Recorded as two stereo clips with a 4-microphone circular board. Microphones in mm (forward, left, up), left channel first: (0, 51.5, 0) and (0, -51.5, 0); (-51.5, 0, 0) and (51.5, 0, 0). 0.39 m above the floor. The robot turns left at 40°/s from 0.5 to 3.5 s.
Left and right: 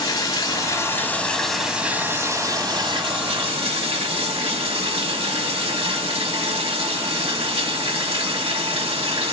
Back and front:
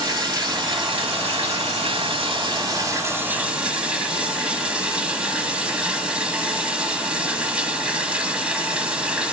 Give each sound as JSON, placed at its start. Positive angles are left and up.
{"t": 0.0, "sound": "running water", "azimuth_deg": 40, "distance_m": 1.1}